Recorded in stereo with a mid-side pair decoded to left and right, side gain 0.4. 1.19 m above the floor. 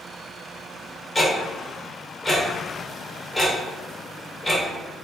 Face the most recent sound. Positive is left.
turn(degrees=10)